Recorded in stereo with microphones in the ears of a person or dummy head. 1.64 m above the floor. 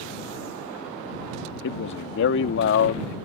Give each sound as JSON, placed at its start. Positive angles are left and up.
{"t": 1.6, "sound": "a man speaking", "side_deg": 65}